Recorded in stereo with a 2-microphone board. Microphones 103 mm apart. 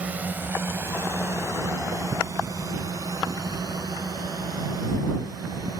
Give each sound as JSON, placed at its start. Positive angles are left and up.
{"t": 0.0, "sound": "a drone", "side_deg": -15}